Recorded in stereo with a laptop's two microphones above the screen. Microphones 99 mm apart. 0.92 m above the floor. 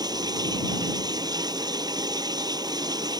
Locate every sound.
0.0 s running water: 40° right (ahead or behind)